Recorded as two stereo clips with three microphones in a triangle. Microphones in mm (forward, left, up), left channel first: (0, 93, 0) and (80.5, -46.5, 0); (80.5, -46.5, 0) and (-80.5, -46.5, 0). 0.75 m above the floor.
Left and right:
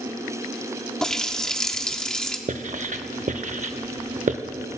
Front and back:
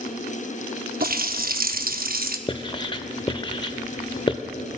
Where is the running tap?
155° right, 0.7 m.